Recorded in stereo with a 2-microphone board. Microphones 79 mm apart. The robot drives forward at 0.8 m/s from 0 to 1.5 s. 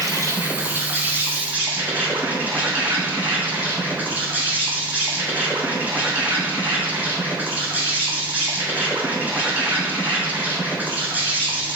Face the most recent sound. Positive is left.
turn(degrees=-20)  # may be behind; listen again after turning